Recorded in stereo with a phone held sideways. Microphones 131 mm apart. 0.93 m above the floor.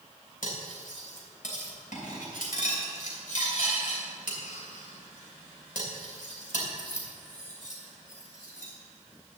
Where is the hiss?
No hiss in this recording.